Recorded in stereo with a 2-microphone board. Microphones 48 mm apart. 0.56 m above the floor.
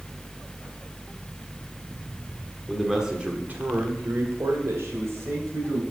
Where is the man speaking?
Centre (ahead or behind), 1.5 m; by 5.8 s 70° right (ahead or behind), 3.5 m.